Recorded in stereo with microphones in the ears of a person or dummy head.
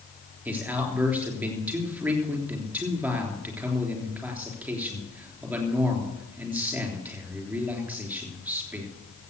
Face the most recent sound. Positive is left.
turn(degrees=-10)  # may be behind; listen again after turning